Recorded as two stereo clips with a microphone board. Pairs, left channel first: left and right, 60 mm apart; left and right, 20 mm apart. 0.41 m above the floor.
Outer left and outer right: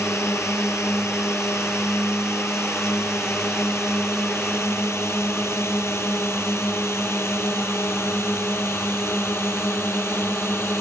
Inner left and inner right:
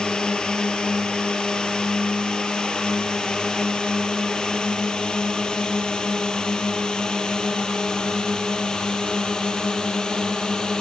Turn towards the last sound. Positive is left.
turn(degrees=40)  # may be behind; listen again after turning